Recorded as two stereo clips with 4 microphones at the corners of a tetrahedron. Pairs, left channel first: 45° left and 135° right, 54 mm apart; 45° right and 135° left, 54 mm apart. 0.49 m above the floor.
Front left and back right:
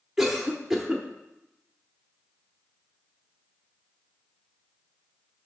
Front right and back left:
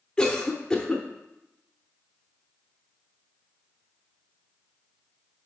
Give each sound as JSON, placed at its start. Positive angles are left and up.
{"t": 0.2, "sound": "a cough", "azimuth_deg": -70, "distance_m": 0.7}